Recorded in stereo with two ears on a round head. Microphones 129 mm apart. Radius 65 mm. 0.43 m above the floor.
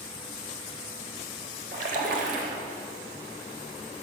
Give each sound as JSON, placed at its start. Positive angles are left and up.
{"t": 1.7, "sound": "a splash", "side_deg": -60, "distance_m": 0.9}